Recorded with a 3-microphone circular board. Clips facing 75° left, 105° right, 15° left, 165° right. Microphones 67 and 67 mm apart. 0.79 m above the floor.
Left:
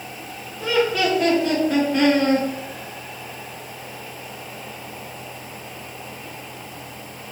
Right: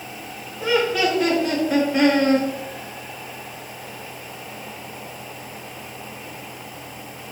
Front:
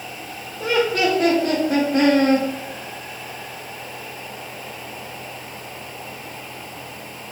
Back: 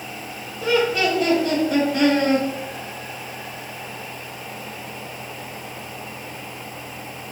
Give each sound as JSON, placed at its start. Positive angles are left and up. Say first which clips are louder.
{"t": 0.6, "sound": "laughter", "louder": "even, even", "azimuth_deg": -20, "distance_m": 2.5}